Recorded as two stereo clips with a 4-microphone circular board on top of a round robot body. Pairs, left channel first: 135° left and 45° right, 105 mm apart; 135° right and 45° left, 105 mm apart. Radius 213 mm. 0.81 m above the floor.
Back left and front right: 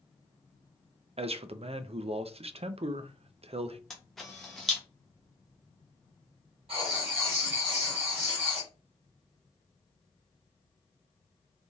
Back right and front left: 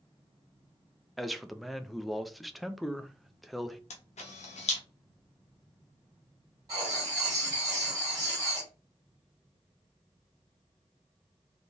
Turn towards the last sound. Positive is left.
turn(degrees=-10)